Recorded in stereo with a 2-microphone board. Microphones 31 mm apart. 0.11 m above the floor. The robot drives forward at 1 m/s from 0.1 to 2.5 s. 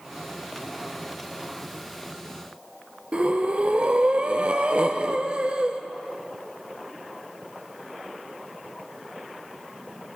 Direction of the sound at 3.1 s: 40° right (ahead or behind).